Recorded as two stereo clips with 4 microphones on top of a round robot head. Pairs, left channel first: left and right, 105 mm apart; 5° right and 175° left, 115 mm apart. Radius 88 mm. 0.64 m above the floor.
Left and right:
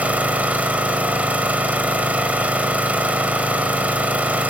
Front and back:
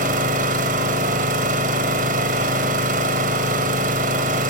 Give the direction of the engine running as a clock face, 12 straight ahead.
6 o'clock.